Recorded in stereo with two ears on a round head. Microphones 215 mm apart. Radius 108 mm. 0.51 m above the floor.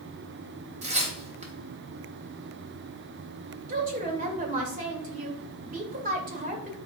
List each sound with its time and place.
0.8 s tearing paper: 30° right (ahead or behind), 3 m
3.7 s a woman speaking: 35° right (ahead or behind), 2.5 m